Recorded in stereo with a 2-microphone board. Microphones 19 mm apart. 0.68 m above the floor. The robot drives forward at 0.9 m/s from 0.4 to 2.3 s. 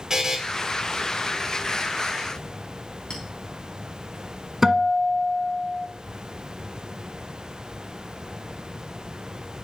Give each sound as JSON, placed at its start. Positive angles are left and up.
{"t": 0.1, "sound": "a buzzer", "side_deg": -30, "distance_m": 1.9}
{"t": 3.1, "sound": "a clink", "side_deg": 50, "distance_m": 3.5}
{"t": 4.6, "sound": "a guitar", "side_deg": -25, "distance_m": 1.2}